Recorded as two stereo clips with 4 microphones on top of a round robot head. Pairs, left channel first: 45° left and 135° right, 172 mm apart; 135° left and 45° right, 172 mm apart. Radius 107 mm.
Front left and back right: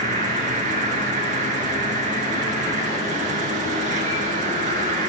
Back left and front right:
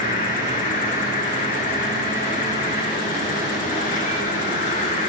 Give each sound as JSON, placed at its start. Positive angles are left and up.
{"t": 0.0, "sound": "an insect", "azimuth_deg": 180, "distance_m": 3.0}